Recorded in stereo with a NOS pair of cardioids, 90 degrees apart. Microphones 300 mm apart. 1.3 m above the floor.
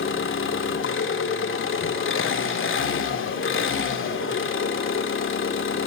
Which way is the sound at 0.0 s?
40° left.